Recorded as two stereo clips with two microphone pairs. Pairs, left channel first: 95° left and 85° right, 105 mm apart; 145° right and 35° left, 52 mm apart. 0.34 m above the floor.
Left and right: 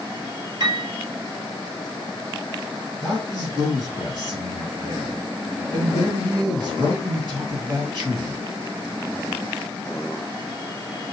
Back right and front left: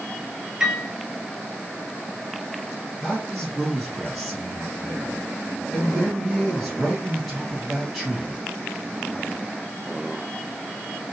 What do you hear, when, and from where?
0.6 s a piano: 40° right, 1.1 m
3.0 s a man speaking: 55° right, 3 m